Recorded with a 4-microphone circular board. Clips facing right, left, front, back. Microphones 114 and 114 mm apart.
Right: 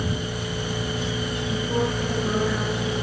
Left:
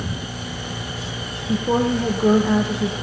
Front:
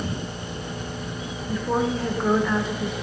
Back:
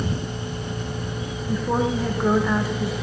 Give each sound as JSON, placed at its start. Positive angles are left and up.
{"t": 1.5, "sound": "a woman speaking", "azimuth_deg": 95, "distance_m": 5.5}